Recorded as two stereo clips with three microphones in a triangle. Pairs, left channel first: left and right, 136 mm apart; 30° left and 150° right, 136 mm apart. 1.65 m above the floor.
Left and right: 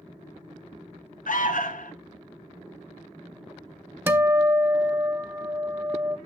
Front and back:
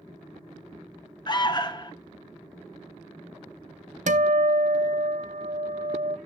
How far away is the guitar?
About 0.7 m.